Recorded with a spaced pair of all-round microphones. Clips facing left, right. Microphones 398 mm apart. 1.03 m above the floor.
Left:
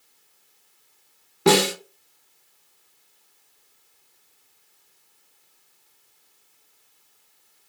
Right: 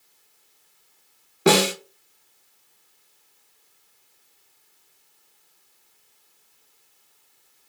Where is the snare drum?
5° left (ahead or behind), 1.0 m.